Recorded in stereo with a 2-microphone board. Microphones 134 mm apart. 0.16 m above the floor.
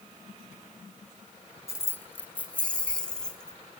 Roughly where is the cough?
I don't hear a cough.